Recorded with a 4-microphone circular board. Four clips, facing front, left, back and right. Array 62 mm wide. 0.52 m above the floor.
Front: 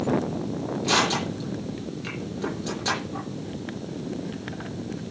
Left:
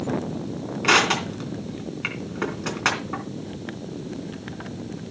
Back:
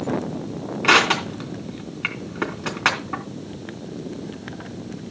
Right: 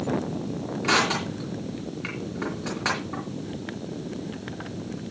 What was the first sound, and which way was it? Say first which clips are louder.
Crushing: left 4 dB, back 7 dB; 155° left.